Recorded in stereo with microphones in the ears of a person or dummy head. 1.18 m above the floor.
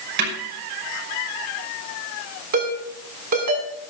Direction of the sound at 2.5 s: 60° right (ahead or behind).